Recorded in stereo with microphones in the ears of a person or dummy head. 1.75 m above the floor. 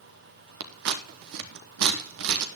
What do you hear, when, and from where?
0.6 s scissors: 55° right (ahead or behind), 0.9 m